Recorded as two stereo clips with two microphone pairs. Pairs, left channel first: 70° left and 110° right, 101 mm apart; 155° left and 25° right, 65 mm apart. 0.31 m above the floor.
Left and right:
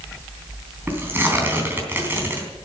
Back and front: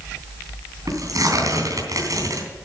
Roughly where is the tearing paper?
Ahead right.